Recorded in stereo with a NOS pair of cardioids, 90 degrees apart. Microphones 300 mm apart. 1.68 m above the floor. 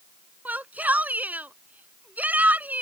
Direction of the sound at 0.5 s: 5° right.